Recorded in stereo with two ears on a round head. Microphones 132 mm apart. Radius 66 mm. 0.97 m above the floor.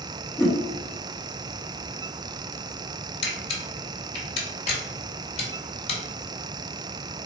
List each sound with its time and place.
0.4 s a whoosh: 5° left (ahead or behind), 1.3 m
3.2 s a camera shutter: 45° left (ahead or behind), 1.6 m